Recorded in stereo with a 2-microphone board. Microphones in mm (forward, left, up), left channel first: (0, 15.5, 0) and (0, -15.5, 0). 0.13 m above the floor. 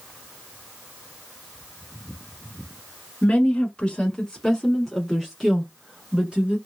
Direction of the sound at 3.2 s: 40° left (ahead or behind).